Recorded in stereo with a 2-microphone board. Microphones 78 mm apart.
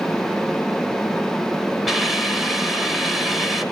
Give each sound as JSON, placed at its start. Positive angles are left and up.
{"t": 1.9, "sound": "a hiss", "side_deg": 0, "distance_m": 1.4}